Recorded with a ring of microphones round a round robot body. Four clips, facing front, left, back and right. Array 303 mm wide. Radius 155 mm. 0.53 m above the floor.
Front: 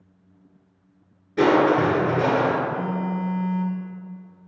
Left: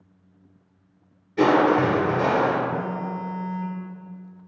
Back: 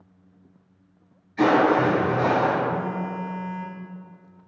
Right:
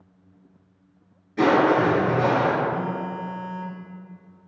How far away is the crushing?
About 2.5 m.